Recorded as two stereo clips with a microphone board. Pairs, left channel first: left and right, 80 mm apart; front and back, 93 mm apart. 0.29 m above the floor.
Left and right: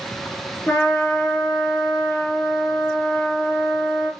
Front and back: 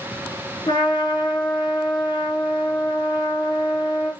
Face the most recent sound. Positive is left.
turn(degrees=30)